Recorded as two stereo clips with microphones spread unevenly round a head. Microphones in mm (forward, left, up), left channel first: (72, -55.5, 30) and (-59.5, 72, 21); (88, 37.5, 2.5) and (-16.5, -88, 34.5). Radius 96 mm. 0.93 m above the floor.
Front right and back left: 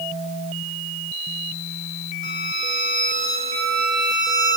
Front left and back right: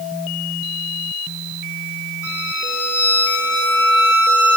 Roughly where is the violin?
Behind right.